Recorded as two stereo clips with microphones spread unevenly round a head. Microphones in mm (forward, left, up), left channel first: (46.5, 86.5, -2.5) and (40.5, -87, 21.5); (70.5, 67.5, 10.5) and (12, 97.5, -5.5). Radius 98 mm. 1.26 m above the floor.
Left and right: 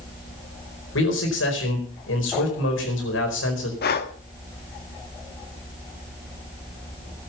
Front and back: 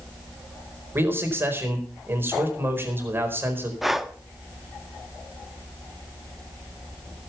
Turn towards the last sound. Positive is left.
turn(degrees=60)